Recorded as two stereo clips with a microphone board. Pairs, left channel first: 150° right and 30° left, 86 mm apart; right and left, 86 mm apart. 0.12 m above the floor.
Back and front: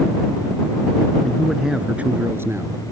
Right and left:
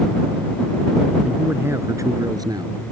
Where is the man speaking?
145° left; by 2.9 s 75° left.